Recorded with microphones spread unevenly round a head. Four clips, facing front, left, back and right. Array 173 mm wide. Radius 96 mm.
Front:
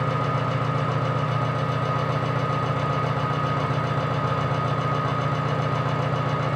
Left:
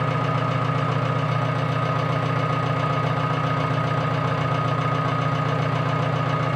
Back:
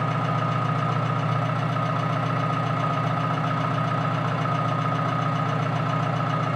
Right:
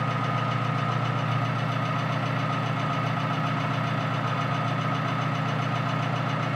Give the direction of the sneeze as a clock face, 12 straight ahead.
I don't hear a sneeze.